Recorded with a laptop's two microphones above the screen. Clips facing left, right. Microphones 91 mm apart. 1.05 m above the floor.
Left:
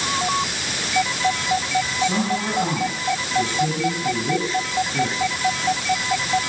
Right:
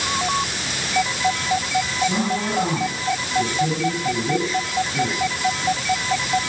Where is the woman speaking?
15° left (ahead or behind), 9.5 m.